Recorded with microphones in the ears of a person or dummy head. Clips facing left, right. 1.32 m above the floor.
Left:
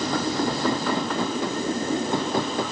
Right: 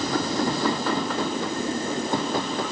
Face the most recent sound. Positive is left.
No sound to turn to.